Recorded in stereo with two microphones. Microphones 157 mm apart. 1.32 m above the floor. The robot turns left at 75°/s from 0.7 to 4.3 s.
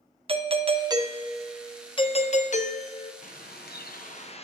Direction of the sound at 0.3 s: 130° right.